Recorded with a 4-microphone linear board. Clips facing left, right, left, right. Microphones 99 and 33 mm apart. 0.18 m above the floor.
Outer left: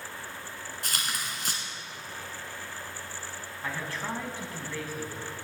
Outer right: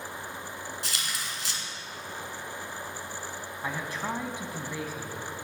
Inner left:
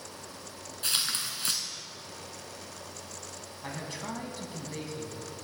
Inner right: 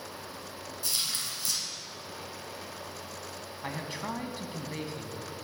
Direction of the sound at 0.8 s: 50° left (ahead or behind).